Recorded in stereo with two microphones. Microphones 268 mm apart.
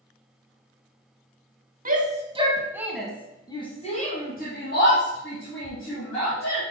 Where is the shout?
30° right (ahead or behind), 1.2 m; by 6.6 s 60° left (ahead or behind), 2.5 m.